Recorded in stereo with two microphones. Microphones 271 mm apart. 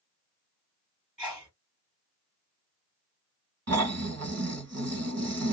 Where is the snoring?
70° right (ahead or behind), 1.3 m.